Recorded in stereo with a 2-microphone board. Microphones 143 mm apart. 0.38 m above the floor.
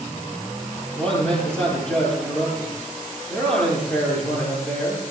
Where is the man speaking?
10° left (ahead or behind), 8.5 m.